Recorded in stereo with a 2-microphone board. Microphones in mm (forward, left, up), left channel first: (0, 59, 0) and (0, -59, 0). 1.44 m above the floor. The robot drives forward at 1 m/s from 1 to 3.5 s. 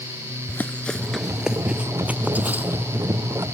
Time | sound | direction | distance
0.5 | running footsteps | 20° left (ahead or behind) | ?